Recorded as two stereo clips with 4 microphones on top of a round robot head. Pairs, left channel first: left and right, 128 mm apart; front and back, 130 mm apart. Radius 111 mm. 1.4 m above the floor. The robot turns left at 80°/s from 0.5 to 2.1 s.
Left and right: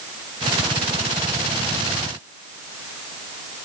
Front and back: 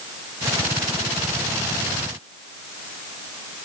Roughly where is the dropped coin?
No dropped coin in this recording.